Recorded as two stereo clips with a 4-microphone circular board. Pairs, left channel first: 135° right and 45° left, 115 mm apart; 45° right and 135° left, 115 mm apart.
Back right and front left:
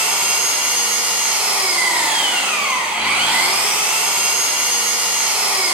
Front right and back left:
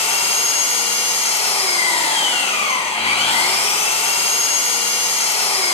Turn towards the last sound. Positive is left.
turn(degrees=-30)